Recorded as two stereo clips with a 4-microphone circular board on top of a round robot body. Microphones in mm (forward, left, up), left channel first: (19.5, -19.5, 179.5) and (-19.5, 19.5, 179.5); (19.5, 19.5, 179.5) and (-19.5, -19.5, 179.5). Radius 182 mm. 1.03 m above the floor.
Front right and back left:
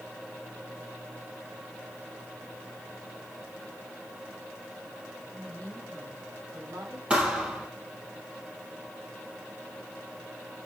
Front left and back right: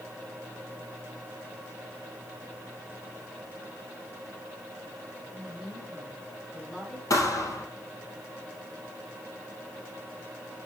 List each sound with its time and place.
5.3 s a woman speaking: 130° left, 7.5 m
7.1 s a thud: 65° left, 2.0 m